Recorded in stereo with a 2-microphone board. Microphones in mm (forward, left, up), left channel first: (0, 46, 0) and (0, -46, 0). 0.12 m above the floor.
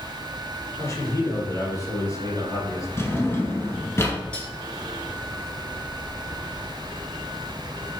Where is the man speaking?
35° left (ahead or behind), 1.8 m.